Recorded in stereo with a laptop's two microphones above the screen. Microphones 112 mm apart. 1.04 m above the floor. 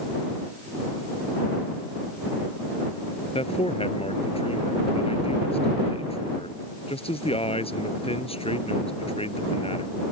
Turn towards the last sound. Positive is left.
turn(degrees=60)  # may be behind; listen again after turning